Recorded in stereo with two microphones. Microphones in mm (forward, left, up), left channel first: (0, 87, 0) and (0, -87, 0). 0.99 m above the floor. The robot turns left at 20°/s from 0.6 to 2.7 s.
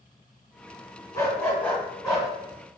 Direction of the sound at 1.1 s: 20° left (ahead or behind).